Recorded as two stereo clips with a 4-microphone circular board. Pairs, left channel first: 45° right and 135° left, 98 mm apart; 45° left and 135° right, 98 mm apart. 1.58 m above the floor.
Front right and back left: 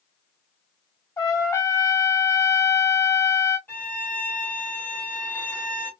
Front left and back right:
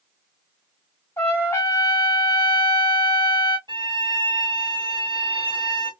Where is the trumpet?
10° right, 1.4 m.